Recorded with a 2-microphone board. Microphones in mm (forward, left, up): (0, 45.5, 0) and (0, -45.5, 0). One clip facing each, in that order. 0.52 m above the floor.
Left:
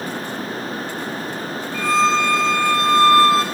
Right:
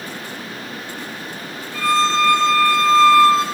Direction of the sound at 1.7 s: Centre (ahead or behind).